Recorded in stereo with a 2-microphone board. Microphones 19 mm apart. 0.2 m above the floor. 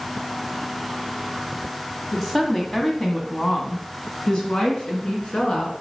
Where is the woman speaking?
5° left (ahead or behind), 1.4 m; by 5.7 s 45° left (ahead or behind), 2.5 m.